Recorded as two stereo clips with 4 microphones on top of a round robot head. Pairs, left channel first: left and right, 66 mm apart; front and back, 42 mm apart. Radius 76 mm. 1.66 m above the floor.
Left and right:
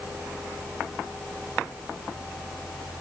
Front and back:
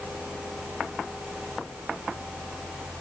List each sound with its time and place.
Only background noise.